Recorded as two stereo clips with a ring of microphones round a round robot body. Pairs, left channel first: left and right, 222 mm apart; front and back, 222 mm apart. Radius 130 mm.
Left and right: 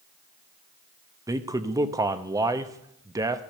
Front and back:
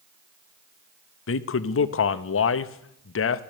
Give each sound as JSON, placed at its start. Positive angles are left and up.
{"t": 1.3, "sound": "a man speaking", "azimuth_deg": -15, "distance_m": 0.9}